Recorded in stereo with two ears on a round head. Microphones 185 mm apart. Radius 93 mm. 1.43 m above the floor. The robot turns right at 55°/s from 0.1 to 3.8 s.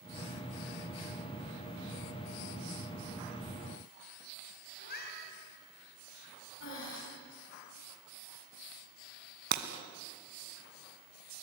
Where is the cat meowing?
50° left (ahead or behind), 5.5 m.